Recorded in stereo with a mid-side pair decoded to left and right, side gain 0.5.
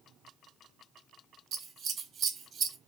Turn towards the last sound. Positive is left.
turn(degrees=-55)